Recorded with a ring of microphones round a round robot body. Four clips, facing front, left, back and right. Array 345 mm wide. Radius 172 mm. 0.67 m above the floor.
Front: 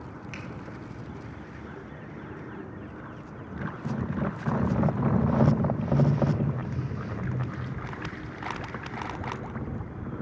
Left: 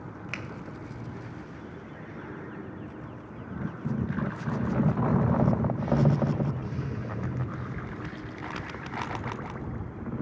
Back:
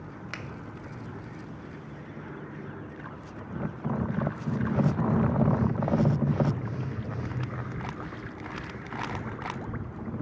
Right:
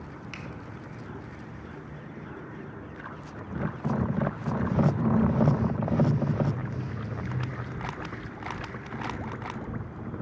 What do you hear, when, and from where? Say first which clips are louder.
0.3 s a finger snap: left 6 dB, back 3 dB; 145° left, 0.6 m